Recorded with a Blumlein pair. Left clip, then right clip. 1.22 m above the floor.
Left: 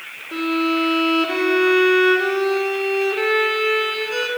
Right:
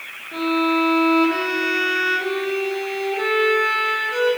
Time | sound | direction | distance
0.3 | a violin | 55° left | 3 m